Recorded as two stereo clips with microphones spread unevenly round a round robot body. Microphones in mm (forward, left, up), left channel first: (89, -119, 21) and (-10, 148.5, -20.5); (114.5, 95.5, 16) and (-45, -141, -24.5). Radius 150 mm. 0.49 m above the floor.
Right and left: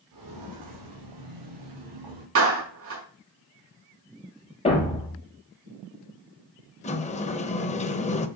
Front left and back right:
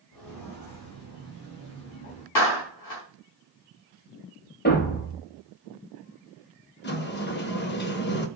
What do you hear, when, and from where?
0.1 s footsteps: 90° left, 4 m; by 2.2 s 105° left, 6 m
2.4 s a clap: 70° left, 5 m
4.7 s a thud: straight ahead, 4 m
6.8 s a sliding door: straight ahead, 1.0 m